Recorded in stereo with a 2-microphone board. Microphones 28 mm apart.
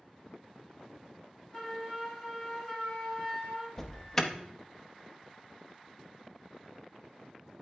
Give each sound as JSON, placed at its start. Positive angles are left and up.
{"t": 1.5, "sound": "a flute", "side_deg": 30, "distance_m": 3.0}
{"t": 3.8, "sound": "an alarm", "side_deg": 20, "distance_m": 0.8}